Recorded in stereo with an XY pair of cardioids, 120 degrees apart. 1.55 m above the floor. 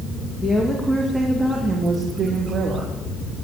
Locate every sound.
0.4 s a woman speaking: 20° left, 2.5 m; by 2.9 s 50° right, 3 m